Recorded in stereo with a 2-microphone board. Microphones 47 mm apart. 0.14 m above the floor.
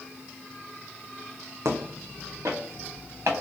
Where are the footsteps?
80° right, 0.5 m.